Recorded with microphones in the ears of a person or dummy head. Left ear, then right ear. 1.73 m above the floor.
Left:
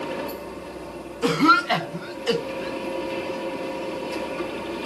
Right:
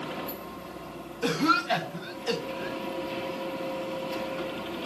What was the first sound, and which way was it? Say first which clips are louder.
A machine running: left 6 dB; 10° right (ahead or behind).